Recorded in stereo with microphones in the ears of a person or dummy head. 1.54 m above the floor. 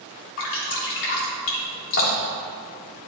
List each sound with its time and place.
0.4 s dripping: 65° left (ahead or behind), 3 m